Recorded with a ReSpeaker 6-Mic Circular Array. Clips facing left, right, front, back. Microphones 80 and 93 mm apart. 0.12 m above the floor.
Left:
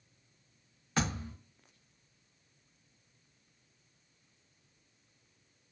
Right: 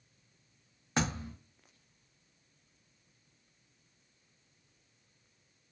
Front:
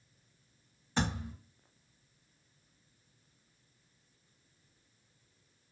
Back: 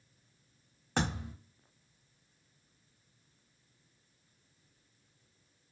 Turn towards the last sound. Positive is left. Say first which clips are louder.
# right 1 dB, even
turn(degrees=-155)